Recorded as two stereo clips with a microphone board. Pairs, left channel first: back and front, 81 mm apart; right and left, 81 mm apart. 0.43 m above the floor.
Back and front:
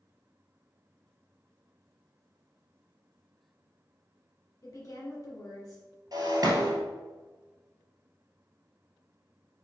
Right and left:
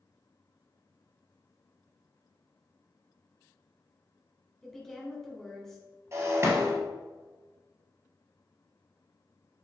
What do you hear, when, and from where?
4.6 s a woman speaking: 175° right, 1.3 m
6.1 s breaking glass: 40° left, 1.4 m